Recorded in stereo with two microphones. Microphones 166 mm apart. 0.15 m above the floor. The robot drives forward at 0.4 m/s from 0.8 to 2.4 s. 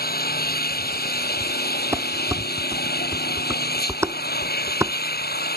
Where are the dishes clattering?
15° right (ahead or behind).